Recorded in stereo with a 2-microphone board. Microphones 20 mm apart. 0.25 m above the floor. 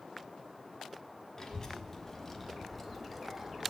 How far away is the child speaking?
About 1.7 m.